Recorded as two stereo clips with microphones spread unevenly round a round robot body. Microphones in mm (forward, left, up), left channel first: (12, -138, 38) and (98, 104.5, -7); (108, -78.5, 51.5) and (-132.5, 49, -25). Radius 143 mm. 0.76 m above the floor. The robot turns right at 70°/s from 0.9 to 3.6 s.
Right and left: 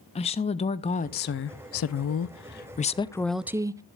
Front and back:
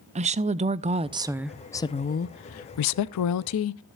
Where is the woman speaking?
Straight behind, 0.5 m; by 3.8 s 10° left, 0.5 m.